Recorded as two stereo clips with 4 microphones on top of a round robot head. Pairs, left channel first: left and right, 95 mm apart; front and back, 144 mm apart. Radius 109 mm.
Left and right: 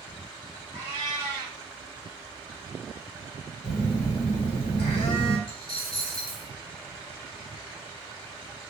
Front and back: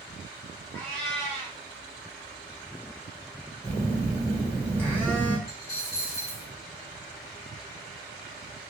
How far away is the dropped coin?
About 1.4 m.